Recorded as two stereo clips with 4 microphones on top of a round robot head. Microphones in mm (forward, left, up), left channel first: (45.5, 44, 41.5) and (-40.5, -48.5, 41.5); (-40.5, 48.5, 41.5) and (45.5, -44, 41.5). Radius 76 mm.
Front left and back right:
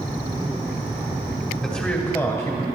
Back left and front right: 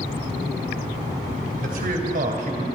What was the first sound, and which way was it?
A man speaking, 35° right.